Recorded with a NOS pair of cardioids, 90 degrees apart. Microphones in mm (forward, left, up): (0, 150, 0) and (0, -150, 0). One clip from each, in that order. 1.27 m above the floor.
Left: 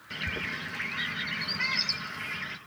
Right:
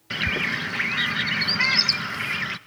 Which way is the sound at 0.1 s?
55° right.